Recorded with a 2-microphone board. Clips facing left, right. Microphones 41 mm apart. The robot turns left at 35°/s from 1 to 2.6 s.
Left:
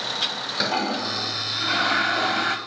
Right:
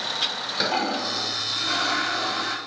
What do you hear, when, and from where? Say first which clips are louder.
0.6 s a toilet flushing: even; straight behind, 0.7 m; by 2.6 s 125° left, 0.7 m